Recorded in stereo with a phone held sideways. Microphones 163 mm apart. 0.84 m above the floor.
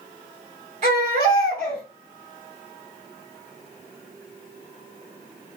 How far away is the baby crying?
About 2 m.